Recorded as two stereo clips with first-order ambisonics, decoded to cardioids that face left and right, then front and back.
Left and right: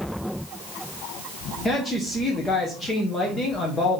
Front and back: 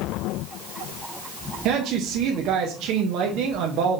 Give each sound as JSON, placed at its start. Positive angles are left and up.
{"t": 1.6, "sound": "a woman speaking", "azimuth_deg": 165, "distance_m": 0.7}